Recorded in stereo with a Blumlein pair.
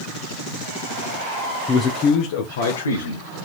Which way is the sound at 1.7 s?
15° left.